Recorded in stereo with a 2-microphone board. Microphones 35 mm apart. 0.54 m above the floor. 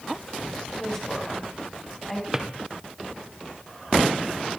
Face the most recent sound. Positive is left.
turn(degrees=-15)  # may be behind; listen again after turning